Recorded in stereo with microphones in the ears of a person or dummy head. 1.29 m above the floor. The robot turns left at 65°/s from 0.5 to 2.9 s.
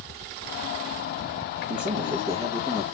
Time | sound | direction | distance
1.7 | a man speaking | 110° right | 1.6 m